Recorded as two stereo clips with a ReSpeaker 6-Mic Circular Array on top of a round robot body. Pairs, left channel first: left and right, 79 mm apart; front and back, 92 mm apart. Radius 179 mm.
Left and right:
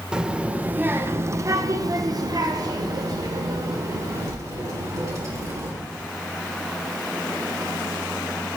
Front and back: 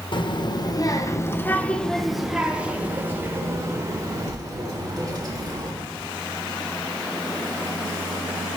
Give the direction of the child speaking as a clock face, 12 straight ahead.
12 o'clock.